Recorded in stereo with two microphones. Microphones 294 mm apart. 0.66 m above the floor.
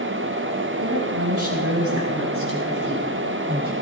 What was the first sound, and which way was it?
A woman speaking, 60° right (ahead or behind).